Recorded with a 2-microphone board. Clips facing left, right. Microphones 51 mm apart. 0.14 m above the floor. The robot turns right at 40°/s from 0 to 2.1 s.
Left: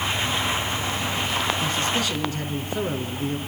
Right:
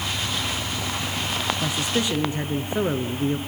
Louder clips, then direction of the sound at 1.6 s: Even; 10° right (ahead or behind).